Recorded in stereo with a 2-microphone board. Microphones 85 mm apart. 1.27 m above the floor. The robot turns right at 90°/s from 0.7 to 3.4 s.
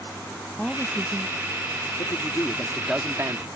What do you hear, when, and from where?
0.6 s a woman speaking: 5° left (ahead or behind); by 1.9 s 80° right
2.0 s a man speaking: 105° left; by 3.5 s 130° right